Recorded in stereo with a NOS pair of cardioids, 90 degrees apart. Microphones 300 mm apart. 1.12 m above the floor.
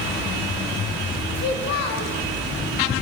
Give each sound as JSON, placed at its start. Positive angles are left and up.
{"t": 1.4, "sound": "a child speaking", "azimuth_deg": 60, "distance_m": 0.8}